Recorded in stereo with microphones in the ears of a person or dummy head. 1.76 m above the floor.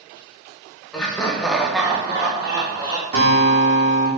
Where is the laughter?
10° left (ahead or behind), 0.9 m; by 3.0 s 15° right (ahead or behind), 0.7 m.